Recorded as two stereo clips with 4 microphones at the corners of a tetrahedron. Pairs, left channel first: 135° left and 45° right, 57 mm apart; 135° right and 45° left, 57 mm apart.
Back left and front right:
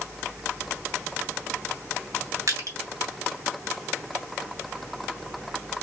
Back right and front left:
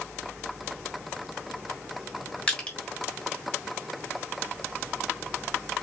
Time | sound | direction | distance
2.5 | crushing | 65° right | 1.7 m